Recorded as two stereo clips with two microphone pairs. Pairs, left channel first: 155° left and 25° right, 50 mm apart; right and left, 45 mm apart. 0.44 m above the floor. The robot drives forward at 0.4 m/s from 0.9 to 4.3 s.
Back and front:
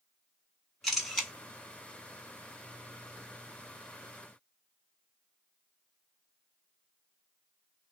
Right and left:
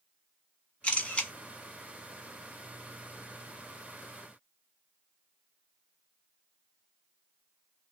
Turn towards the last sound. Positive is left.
turn(degrees=-160)